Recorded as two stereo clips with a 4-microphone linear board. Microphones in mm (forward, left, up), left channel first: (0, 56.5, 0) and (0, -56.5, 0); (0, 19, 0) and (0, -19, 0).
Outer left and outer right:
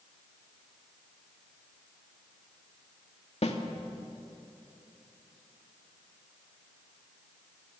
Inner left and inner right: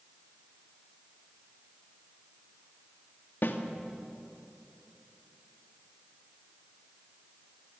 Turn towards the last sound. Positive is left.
turn(degrees=70)  # may be behind; listen again after turning